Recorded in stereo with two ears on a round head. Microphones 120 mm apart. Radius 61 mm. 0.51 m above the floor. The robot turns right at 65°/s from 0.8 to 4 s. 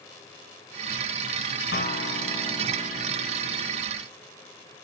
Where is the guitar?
90° left, 3 m; by 3.8 s 130° right, 3 m.